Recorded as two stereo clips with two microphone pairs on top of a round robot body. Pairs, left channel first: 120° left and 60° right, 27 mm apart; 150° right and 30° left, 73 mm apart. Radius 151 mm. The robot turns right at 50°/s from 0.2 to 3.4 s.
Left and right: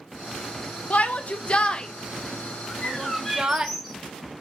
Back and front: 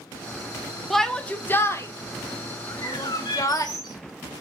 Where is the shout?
120° left, 1.6 m; by 3.7 s 115° right, 1.6 m.